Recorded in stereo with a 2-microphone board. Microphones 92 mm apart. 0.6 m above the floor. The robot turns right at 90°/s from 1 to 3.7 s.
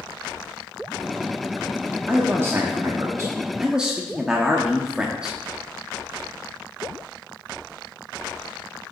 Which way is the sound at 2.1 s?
160° right.